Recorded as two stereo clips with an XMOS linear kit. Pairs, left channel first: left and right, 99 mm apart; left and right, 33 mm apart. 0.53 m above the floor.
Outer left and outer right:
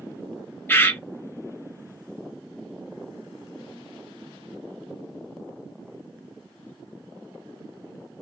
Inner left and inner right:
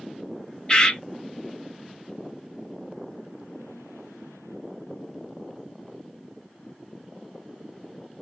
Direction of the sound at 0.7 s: 20° left (ahead or behind).